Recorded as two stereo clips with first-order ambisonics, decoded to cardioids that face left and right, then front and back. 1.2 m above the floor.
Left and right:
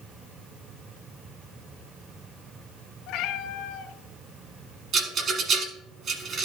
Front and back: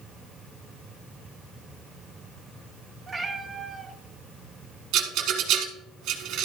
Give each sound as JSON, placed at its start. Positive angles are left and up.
{"t": 3.1, "sound": "a cat meowing", "azimuth_deg": 105, "distance_m": 1.1}
{"t": 4.9, "sound": "a rattle", "azimuth_deg": -145, "distance_m": 1.3}